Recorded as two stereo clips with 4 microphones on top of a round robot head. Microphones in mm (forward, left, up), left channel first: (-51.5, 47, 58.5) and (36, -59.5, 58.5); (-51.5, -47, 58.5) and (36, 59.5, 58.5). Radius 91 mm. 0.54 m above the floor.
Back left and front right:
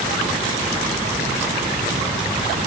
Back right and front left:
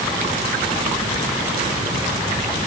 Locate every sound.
Only background noise.